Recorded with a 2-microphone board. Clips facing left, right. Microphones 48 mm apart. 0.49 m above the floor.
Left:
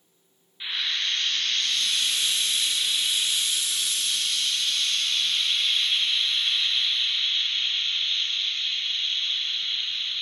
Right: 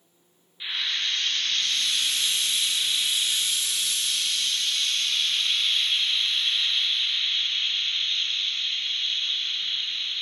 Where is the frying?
5° left (ahead or behind), 1.2 m.